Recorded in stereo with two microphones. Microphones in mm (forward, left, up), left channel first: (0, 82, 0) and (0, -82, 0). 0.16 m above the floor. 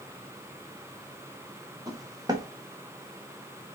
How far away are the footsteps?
About 2 m.